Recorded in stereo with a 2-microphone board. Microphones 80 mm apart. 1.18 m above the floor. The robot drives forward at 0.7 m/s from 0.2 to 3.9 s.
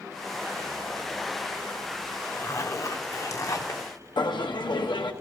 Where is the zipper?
35° left (ahead or behind), 1.1 m; by 3.8 s 40° left (ahead or behind), 1.0 m.